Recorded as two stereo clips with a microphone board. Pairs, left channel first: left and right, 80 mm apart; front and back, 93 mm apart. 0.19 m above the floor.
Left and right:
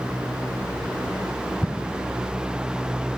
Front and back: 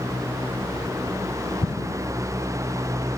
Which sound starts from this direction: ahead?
An explosion, at 1.6 s.